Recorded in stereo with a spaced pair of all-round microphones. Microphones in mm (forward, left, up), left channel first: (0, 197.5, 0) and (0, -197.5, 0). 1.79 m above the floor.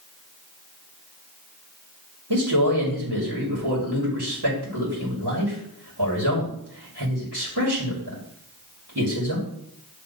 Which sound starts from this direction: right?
A man speaking, at 2.3 s.